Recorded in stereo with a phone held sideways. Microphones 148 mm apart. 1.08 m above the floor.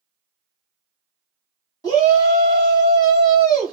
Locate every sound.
1.8 s a shout: 25° left (ahead or behind), 1.7 m